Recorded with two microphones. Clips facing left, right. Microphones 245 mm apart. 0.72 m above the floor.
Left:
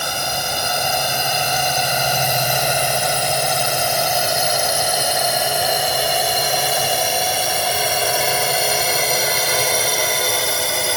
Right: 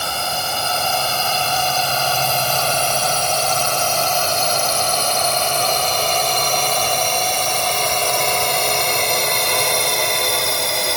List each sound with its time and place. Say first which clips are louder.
0.0 s a drone: even; 15° left (ahead or behind); by 11.0 s centre (ahead or behind)